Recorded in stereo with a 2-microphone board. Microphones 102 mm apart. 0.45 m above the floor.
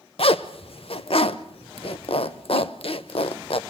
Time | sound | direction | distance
0.2 | a zipper | 65° left (ahead or behind) | 0.8 m